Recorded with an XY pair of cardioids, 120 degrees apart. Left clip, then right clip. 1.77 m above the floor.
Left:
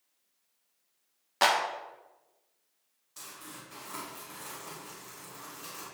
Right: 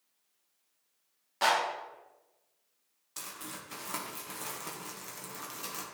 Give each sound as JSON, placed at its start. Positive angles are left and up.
{"t": 1.4, "sound": "a clap", "azimuth_deg": 45, "distance_m": 2.0}
{"t": 3.2, "sound": "crumpling", "azimuth_deg": -50, "distance_m": 1.9}